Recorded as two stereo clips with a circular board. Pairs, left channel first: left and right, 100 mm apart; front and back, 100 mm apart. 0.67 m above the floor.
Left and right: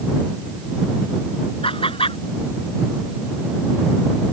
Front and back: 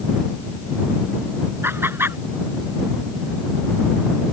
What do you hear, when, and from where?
1.6 s laughter: 110° left